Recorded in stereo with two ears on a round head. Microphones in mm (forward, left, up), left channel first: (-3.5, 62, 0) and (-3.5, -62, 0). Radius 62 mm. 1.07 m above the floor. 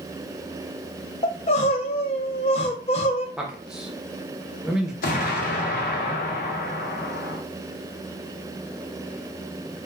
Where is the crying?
45° left (ahead or behind), 0.5 m.